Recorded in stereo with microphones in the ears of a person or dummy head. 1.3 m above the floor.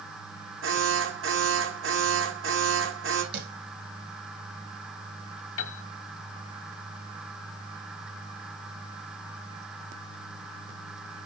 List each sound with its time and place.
0.6 s an alarm: 80° right, 7.5 m
3.3 s tapping: 60° right (ahead or behind), 8.5 m
5.6 s a piano: 70° left (ahead or behind), 1.3 m